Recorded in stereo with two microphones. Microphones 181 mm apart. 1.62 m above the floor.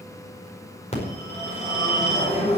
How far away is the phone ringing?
About 5 m.